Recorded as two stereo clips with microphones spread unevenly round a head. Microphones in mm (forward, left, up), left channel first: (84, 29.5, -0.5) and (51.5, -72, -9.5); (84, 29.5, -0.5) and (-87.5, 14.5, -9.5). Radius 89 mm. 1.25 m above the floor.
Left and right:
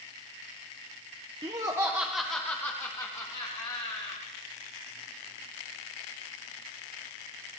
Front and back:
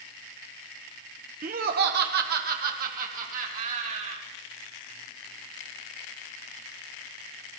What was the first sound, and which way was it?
Laughter, 145° right.